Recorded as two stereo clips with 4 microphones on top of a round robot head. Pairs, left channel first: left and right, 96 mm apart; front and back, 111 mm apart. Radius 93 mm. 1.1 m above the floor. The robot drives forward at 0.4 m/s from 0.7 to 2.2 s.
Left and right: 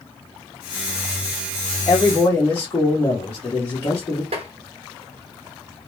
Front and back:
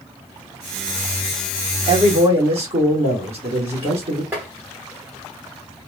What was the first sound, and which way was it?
A man speaking, 155° left.